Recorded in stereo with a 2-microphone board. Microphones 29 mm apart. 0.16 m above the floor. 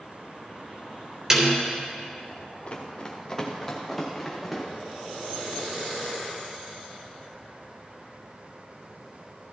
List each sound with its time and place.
1.3 s a snare drum: 25° right (ahead or behind), 3 m
2.7 s running footsteps: 45° left (ahead or behind), 2 m; by 4.6 s centre (ahead or behind), 4.5 m